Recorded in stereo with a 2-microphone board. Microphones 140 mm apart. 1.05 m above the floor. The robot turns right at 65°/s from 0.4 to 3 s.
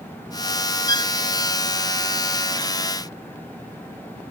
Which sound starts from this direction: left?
A violin, at 0.9 s.